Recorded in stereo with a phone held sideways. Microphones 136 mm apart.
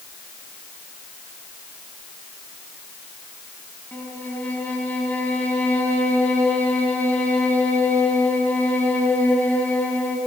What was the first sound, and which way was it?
A violin, 15° left (ahead or behind).